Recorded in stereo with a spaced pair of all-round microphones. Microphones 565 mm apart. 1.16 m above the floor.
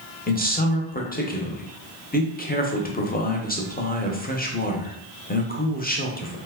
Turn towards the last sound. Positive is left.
turn(degrees=15)  # may be behind; listen again after turning